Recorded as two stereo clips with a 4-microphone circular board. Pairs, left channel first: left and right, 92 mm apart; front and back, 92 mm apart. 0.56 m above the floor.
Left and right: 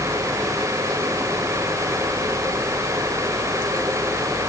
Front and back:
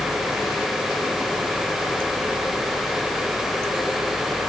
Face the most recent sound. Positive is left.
No sound to turn to.